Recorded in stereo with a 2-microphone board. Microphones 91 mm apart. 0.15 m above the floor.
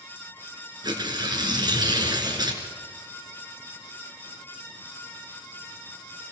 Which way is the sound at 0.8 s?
50° right (ahead or behind).